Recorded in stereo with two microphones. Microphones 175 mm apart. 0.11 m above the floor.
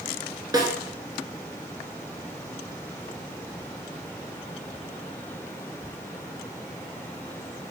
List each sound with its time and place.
0.5 s a snare drum: 20° right (ahead or behind), 0.9 m